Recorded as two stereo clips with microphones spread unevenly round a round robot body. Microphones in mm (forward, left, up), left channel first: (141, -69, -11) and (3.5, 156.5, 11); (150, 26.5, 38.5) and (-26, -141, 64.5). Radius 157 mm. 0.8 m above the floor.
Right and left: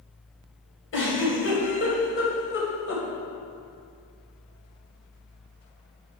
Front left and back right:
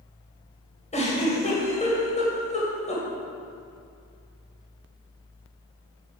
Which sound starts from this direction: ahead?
A giggle, at 0.9 s.